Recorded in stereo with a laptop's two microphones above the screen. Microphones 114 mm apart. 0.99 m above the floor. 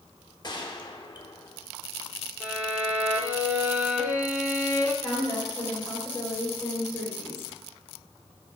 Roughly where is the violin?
Centre.